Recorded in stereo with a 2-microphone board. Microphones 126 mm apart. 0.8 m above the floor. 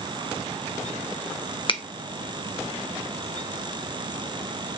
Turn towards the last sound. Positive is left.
turn(degrees=40)  # may be behind; listen again after turning